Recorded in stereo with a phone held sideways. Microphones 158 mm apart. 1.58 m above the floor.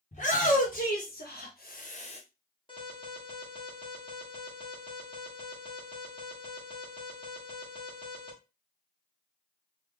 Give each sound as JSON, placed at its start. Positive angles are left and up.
{"t": 0.1, "sound": "a shout", "side_deg": 45, "distance_m": 1.1}
{"t": 2.7, "sound": "an alarm", "side_deg": 30, "distance_m": 1.3}